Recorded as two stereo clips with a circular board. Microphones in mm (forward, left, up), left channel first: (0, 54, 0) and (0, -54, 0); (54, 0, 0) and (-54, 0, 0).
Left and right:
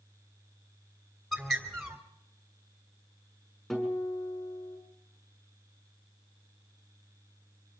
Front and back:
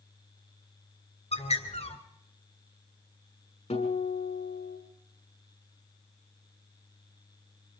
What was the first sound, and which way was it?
A bird, straight ahead.